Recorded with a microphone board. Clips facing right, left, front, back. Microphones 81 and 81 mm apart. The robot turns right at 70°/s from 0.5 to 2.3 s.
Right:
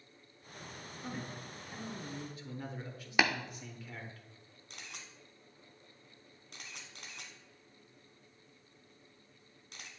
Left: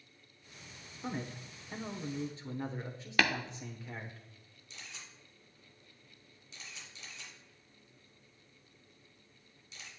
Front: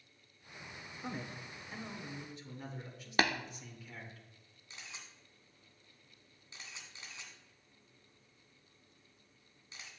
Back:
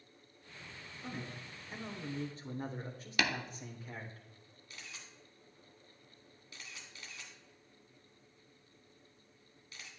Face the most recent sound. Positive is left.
turn(degrees=-65)